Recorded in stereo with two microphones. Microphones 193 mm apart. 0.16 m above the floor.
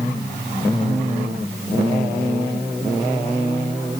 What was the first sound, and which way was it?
Only background noise.